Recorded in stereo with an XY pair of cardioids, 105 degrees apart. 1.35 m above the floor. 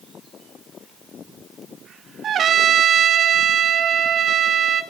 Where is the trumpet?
55° right, 1.1 m.